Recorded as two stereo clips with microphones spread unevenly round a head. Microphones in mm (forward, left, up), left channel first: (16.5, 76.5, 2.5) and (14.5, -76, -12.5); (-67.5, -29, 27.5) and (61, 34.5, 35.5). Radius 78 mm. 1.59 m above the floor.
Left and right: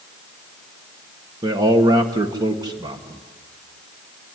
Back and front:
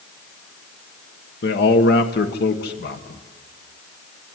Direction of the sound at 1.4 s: 160° right.